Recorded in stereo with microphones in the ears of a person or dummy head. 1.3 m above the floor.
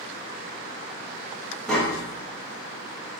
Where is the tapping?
10° left (ahead or behind), 0.6 m.